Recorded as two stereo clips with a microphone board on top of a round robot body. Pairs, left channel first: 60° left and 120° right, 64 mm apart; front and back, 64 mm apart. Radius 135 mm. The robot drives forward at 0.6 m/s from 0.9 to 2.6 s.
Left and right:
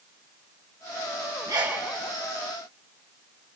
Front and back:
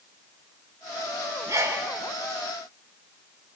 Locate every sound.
1.5 s a sneeze: 135° right, 5.5 m